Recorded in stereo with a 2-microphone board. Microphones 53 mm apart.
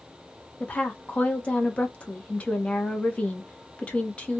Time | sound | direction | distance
0.6 | a woman speaking | 25° left (ahead or behind) | 1.1 m